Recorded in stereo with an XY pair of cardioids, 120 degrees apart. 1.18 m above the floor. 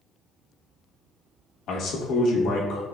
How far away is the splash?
I don't hear a splash.